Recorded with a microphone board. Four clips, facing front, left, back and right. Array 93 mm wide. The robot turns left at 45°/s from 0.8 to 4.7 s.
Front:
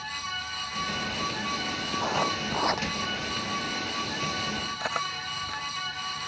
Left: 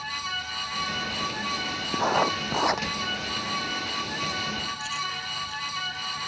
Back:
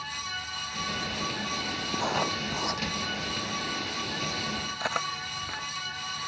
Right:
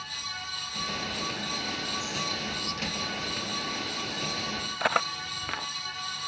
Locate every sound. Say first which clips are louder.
1.9 s writing: left 10 dB, front 1 dB; 100° left; by 2.9 s 60° left
4.8 s cutlery clinking: right 5 dB, back 2 dB; 90° right